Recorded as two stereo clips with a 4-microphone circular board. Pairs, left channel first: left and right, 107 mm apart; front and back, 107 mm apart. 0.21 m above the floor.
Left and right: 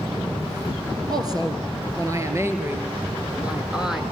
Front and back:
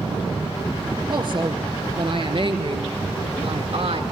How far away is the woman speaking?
About 4.5 m.